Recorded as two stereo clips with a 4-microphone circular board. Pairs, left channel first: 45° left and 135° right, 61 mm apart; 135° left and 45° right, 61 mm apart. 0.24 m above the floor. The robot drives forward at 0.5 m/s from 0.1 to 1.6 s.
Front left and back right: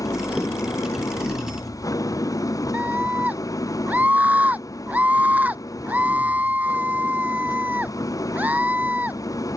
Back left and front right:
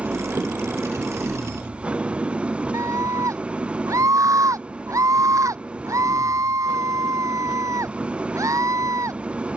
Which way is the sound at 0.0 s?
25° left.